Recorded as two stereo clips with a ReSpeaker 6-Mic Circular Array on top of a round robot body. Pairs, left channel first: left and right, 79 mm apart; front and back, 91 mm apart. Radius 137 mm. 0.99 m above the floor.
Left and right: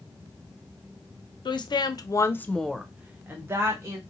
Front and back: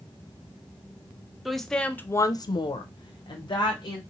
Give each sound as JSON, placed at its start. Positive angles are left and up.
{"t": 1.4, "sound": "a woman speaking", "azimuth_deg": 90, "distance_m": 0.8}